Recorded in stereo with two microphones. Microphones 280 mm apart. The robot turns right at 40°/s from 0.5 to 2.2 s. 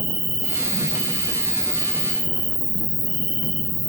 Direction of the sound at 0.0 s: 75° right.